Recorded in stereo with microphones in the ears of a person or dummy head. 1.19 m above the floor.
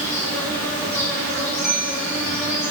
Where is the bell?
5° right (ahead or behind), 1.8 m.